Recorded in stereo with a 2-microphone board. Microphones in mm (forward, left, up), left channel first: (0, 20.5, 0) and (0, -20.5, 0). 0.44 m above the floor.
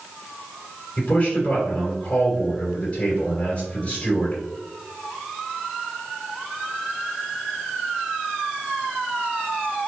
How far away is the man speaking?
About 1.8 m.